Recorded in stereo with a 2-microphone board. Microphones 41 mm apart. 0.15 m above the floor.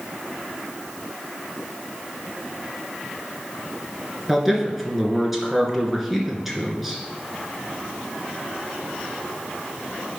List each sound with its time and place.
4.3 s a man speaking: 5° right (ahead or behind), 2 m